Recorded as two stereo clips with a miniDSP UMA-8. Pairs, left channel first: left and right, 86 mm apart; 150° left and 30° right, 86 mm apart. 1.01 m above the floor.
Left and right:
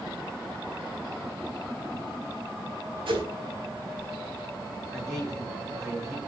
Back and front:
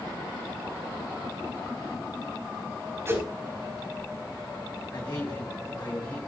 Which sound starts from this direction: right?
A whoosh, at 3.1 s.